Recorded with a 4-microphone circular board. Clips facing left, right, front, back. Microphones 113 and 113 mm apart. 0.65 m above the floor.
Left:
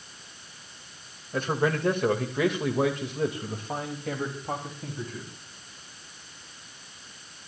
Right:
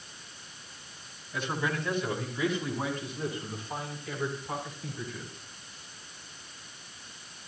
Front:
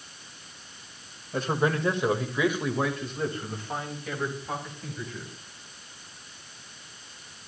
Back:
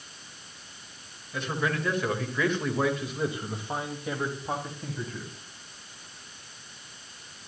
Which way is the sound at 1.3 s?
50° left.